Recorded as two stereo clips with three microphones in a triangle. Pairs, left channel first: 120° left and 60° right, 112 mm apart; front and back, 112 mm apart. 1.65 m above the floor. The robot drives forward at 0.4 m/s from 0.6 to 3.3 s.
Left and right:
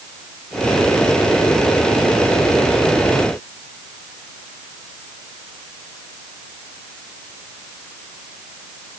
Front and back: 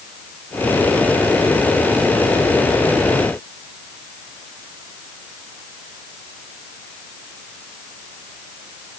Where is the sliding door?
I don't hear a sliding door.